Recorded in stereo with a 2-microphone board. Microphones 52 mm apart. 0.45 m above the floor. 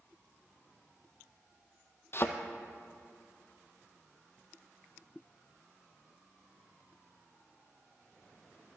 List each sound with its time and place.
2.1 s a thud: 50° left (ahead or behind), 0.6 m